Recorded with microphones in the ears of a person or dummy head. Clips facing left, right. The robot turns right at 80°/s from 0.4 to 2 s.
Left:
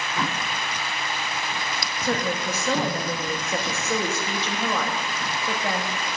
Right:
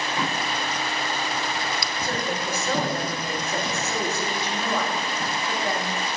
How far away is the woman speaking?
About 1.4 m.